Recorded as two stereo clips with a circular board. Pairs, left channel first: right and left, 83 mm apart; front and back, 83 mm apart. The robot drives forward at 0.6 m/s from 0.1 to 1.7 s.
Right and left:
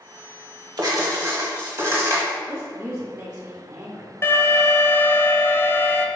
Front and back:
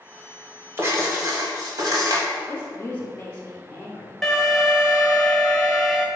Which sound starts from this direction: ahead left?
A woman speaking, at 2.5 s.